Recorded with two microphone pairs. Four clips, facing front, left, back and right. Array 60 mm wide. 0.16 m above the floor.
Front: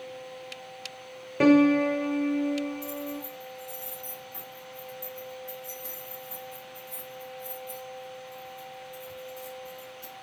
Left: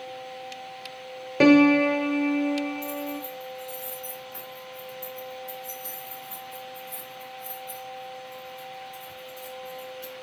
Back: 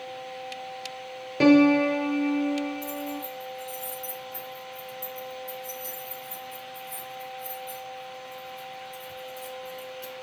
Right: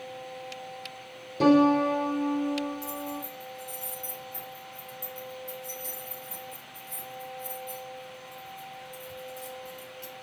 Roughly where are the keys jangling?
Left.